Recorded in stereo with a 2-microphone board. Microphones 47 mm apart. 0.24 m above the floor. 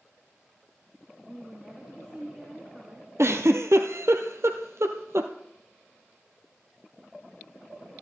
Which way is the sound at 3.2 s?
70° right (ahead or behind).